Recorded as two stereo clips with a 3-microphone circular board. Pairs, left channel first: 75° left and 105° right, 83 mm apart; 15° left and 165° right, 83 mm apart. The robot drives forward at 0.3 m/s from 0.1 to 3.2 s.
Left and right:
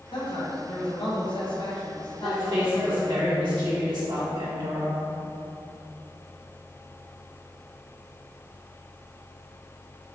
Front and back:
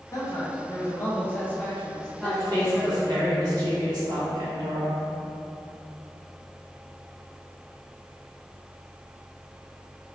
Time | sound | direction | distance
0.1 | a man speaking | 65° left | 1.1 m
2.2 | a woman speaking | 115° right | 1.1 m